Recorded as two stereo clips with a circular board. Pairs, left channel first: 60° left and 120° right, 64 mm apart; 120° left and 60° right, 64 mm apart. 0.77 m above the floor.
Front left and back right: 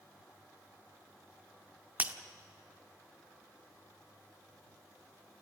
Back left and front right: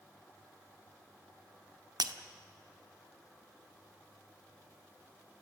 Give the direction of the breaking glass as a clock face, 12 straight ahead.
2 o'clock.